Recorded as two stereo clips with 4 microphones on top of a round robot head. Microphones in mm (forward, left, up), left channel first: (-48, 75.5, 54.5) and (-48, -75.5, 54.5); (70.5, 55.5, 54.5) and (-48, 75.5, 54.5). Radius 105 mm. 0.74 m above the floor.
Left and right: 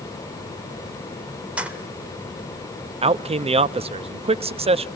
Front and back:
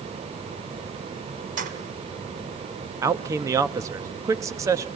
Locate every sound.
1.6 s keys jangling: 170° right, 1.8 m
3.0 s a man speaking: 130° right, 0.7 m